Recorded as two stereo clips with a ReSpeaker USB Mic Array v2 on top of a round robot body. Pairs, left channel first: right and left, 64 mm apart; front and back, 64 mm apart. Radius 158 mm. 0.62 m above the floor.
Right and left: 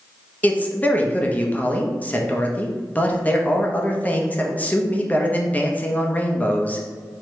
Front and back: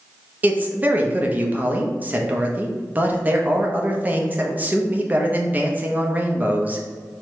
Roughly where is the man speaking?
Behind right.